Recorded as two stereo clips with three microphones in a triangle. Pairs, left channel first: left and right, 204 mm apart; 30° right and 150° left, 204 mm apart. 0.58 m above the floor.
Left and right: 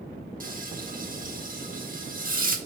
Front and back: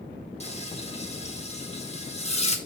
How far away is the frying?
About 1.1 m.